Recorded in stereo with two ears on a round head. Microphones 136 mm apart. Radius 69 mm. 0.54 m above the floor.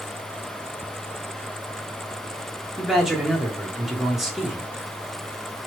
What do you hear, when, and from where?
2.8 s a man speaking: centre (ahead or behind), 1.2 m